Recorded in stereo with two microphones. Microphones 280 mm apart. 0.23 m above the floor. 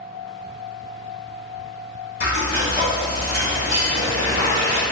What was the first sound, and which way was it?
Frying, 35° right (ahead or behind).